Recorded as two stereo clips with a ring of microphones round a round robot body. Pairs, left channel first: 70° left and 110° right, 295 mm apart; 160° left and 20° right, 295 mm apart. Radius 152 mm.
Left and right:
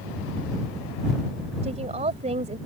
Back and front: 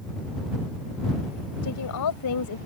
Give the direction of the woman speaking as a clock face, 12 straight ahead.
6 o'clock.